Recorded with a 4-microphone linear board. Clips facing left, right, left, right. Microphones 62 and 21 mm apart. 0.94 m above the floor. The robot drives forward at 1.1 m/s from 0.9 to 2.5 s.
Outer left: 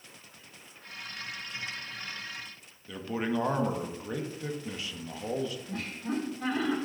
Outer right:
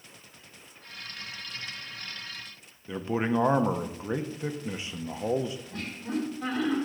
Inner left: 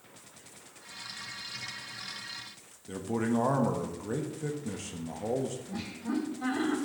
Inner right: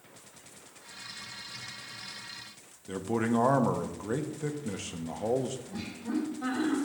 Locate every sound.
2.9 s a man speaking: 25° right (ahead or behind), 0.8 m
5.7 s laughter: 10° left (ahead or behind), 3 m